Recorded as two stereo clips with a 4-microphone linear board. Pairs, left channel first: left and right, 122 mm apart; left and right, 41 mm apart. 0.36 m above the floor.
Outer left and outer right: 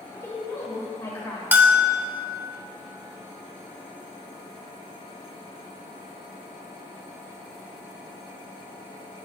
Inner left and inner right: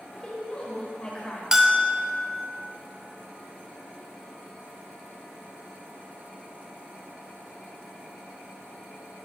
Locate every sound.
0.1 s a woman speaking: 20° left (ahead or behind), 1.5 m
1.5 s a bell: 15° right (ahead or behind), 0.6 m